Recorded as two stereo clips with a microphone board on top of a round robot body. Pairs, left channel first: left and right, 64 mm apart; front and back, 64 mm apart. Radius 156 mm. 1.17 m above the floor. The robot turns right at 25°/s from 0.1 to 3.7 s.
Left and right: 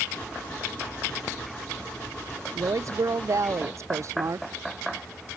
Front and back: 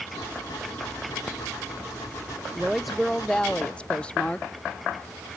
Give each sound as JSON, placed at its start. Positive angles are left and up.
{"t": 2.5, "sound": "a woman speaking", "azimuth_deg": -100, "distance_m": 0.6}